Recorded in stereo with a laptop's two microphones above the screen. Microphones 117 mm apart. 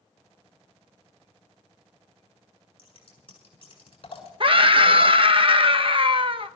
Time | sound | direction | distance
2.8 | scissors | 50° left (ahead or behind) | 7 m
4.4 | a scream | 50° right (ahead or behind) | 0.7 m